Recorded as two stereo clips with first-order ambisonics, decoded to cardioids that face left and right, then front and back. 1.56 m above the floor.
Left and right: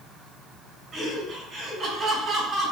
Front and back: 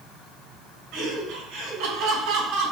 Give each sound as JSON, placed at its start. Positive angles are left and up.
{"t": 0.9, "sound": "laughter", "azimuth_deg": -155, "distance_m": 7.5}